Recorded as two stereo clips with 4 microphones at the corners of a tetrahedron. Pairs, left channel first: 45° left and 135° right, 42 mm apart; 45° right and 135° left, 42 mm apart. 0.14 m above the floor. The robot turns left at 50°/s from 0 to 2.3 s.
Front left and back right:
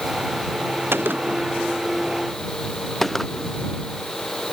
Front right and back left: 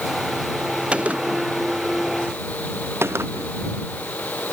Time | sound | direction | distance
0.9 | a gunshot | 160° right | ?